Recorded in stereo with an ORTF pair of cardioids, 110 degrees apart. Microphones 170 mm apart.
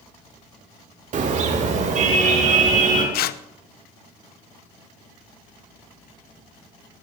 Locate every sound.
1.1 s a car horn: 50° right, 2 m
3.1 s tearing paper: 70° left, 0.7 m